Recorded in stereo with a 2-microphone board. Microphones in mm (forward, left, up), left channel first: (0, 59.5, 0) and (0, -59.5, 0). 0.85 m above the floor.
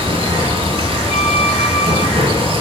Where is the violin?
70° left (ahead or behind), 3.5 m.